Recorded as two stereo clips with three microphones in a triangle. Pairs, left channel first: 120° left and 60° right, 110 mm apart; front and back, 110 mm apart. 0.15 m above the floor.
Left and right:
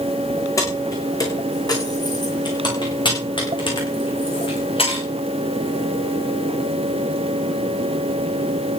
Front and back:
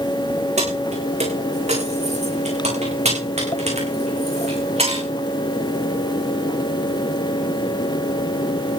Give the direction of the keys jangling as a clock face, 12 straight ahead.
6 o'clock.